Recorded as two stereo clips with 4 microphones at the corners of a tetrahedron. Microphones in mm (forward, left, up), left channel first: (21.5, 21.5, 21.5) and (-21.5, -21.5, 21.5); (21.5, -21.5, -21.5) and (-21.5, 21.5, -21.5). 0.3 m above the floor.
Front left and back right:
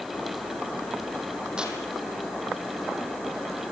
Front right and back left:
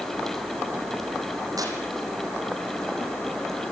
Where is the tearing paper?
150° left, 4.5 m.